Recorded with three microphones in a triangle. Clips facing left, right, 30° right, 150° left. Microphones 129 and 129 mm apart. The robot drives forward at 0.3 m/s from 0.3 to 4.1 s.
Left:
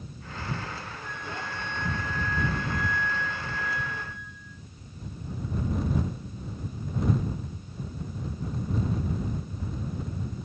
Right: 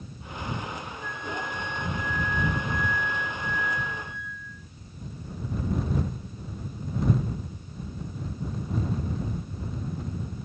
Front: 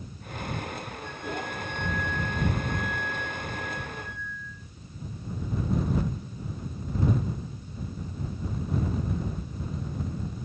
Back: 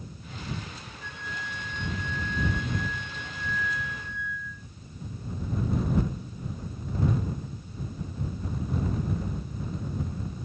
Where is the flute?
150° left, 0.7 m; by 4.6 s 170° left, 1.6 m.